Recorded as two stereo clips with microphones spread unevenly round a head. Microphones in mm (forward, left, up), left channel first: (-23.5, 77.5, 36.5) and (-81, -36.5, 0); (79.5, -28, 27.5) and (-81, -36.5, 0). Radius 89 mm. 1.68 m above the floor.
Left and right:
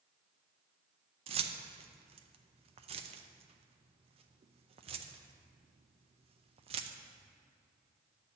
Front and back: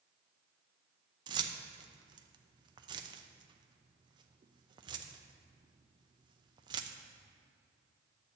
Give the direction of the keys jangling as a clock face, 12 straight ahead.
4 o'clock.